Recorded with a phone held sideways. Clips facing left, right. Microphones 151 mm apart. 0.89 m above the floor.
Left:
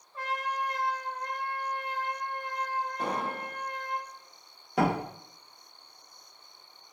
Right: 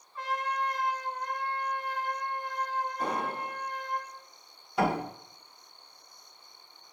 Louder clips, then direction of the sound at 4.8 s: Left 1 dB; 85° left.